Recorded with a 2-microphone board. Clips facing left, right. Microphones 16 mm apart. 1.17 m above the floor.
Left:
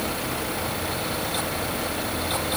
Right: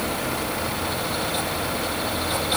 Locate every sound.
Only background noise.